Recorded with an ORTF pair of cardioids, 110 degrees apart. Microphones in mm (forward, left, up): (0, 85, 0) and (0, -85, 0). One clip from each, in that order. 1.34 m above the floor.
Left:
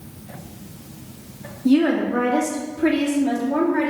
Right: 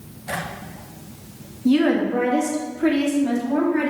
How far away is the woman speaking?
About 1.6 m.